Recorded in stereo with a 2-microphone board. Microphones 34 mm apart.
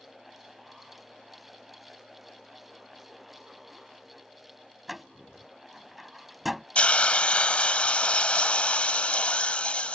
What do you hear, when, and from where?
4.9 s a door slam: 5° right (ahead or behind)
6.8 s a hiss: 40° left (ahead or behind)